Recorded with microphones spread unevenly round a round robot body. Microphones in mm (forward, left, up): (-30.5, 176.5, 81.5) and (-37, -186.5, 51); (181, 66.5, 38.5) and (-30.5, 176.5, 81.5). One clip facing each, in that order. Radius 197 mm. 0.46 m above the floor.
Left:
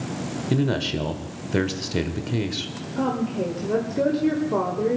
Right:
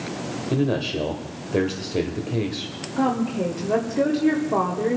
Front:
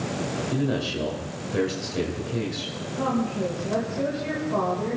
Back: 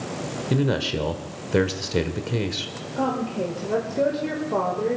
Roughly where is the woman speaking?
Behind.